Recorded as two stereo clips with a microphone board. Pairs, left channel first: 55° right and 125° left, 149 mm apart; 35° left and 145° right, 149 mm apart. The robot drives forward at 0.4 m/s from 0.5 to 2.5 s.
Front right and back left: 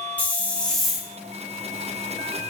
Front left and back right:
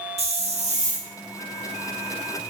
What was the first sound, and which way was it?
A hiss, 135° right.